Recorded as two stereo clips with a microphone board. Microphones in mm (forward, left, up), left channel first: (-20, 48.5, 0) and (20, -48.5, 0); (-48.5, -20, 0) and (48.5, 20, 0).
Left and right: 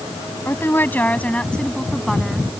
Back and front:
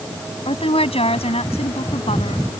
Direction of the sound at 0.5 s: Straight behind.